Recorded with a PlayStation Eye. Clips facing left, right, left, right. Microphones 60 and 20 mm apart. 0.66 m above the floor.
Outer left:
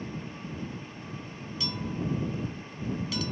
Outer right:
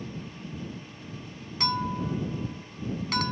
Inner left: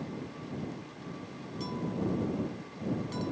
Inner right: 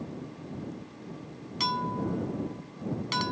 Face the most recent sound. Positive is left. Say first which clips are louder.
# outer right 6 dB, inner right 5 dB
turn(degrees=-65)  # may be behind; listen again after turning